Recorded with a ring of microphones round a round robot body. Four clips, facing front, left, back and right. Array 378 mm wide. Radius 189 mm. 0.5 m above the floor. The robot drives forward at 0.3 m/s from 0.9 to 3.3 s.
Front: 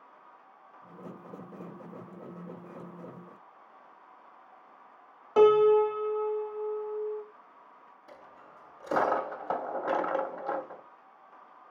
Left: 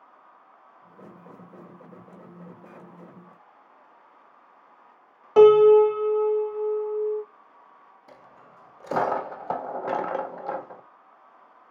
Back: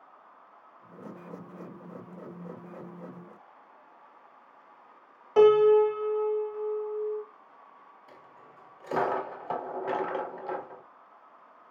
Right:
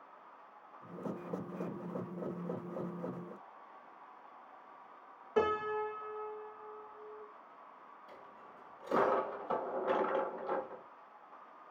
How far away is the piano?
About 0.5 m.